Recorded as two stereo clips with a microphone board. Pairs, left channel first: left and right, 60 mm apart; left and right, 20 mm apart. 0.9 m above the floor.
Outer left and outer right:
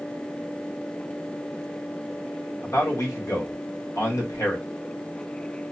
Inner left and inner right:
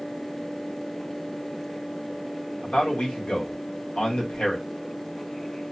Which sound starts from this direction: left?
A man speaking, at 2.6 s.